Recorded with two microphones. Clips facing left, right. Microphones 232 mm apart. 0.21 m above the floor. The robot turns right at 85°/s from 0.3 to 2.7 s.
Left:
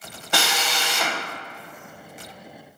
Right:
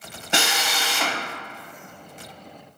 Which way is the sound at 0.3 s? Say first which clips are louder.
Even; 25° right (ahead or behind).